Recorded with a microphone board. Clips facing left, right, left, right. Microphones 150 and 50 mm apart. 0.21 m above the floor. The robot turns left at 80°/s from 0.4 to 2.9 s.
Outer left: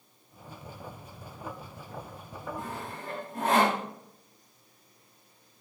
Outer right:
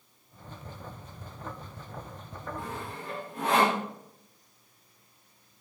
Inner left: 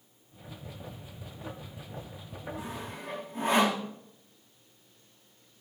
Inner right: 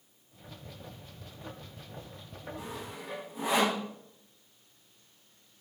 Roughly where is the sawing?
Left.